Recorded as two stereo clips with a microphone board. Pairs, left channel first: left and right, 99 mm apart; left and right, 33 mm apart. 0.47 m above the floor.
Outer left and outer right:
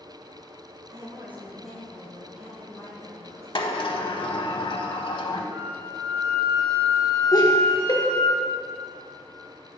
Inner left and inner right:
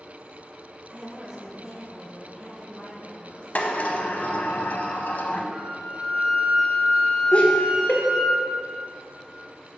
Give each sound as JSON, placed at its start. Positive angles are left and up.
{"t": 0.9, "sound": "a woman speaking", "side_deg": -45, "distance_m": 1.3}
{"t": 3.5, "sound": "a sliding door", "side_deg": 55, "distance_m": 0.6}
{"t": 5.5, "sound": "a flute", "side_deg": -30, "distance_m": 1.3}
{"t": 7.3, "sound": "laughter", "side_deg": 40, "distance_m": 1.1}